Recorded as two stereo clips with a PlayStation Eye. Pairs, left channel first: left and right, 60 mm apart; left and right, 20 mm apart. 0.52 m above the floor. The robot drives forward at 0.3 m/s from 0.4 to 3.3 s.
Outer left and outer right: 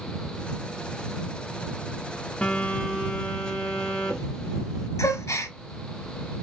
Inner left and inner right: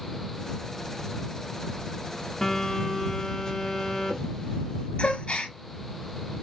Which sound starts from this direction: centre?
A phone buzzing, at 2.4 s.